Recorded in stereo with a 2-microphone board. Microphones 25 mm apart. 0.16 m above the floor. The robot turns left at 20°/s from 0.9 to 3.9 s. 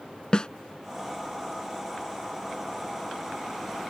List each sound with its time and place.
0.3 s a snare drum: 35° left (ahead or behind)